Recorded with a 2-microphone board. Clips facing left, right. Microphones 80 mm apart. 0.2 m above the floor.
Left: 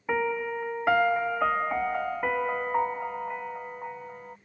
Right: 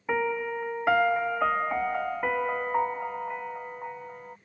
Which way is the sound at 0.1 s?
Centre (ahead or behind).